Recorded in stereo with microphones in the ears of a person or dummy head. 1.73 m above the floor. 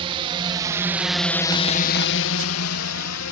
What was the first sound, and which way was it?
A drone, 35° right (ahead or behind).